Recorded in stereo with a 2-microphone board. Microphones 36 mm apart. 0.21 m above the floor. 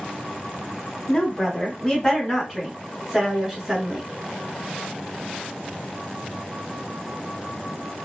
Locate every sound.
1.1 s a woman speaking: 15° left (ahead or behind), 1.5 m; by 4.0 s 25° right (ahead or behind), 1.6 m